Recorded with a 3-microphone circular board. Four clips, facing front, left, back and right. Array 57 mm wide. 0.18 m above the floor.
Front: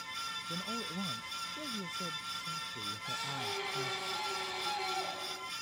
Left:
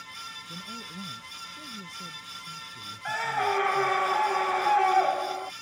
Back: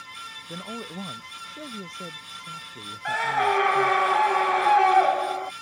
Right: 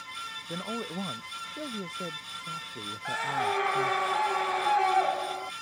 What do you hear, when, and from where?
0.5 s a man speaking: 120° right; by 4.0 s 105° right
3.0 s a scream: 170° left